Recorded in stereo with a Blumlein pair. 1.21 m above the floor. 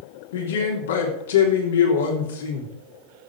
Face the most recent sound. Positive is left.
turn(degrees=60)